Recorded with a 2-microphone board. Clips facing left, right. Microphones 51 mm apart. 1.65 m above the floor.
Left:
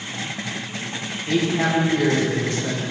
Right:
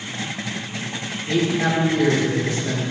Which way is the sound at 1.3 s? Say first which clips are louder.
Even; 85° left.